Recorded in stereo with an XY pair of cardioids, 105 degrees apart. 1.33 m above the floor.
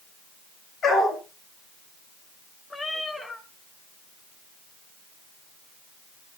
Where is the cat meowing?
30° left, 2 m.